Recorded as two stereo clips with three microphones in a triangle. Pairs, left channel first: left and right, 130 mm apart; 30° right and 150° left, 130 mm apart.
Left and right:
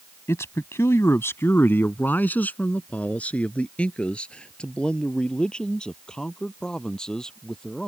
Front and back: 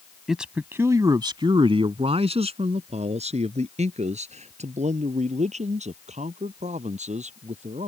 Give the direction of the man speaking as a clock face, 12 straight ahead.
10 o'clock.